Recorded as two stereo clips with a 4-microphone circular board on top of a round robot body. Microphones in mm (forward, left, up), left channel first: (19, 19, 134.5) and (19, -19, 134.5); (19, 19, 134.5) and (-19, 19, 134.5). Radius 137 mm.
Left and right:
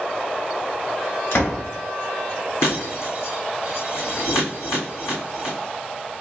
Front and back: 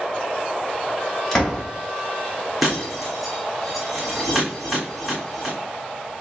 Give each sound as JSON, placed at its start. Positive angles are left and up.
{"t": 1.3, "sound": "a door slam", "azimuth_deg": 80, "distance_m": 2.0}
{"t": 2.6, "sound": "breaking glass", "azimuth_deg": 95, "distance_m": 1.8}